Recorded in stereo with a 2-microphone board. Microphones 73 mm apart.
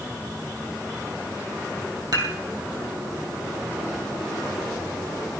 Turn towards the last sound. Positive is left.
turn(degrees=-60)  # may be behind; listen again after turning